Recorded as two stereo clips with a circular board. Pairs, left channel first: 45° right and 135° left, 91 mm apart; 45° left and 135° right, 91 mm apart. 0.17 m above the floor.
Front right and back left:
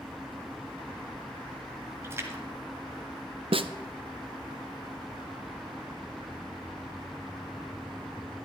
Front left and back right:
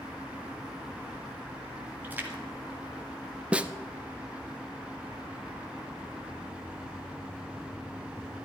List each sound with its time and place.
2.0 s a splash: 170° left, 1.7 m
3.5 s a snare drum: 150° left, 0.5 m